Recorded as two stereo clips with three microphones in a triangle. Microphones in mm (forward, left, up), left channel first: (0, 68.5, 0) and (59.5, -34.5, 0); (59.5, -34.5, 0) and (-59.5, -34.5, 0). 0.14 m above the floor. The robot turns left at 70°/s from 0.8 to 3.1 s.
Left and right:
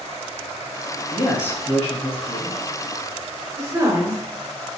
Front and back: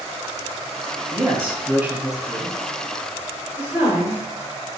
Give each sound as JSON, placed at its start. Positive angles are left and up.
{"t": 1.1, "sound": "a man speaking", "azimuth_deg": 180, "distance_m": 1.0}
{"t": 3.6, "sound": "a woman speaking", "azimuth_deg": -110, "distance_m": 2.0}